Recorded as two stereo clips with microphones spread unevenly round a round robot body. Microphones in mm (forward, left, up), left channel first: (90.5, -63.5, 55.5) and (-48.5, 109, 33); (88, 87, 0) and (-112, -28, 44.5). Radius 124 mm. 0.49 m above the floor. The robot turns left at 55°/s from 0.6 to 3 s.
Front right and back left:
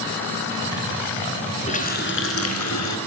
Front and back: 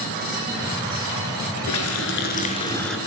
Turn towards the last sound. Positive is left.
turn(degrees=-65)